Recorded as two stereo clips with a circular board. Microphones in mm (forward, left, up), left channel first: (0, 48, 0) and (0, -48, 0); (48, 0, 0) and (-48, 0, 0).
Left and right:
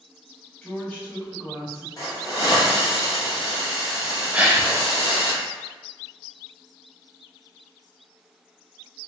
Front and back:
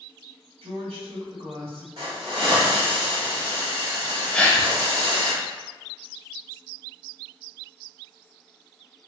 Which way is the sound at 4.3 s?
55° right.